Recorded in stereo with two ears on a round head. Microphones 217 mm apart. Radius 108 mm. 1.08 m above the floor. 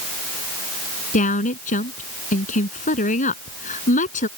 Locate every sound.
1.1 s a woman speaking: 35° left (ahead or behind)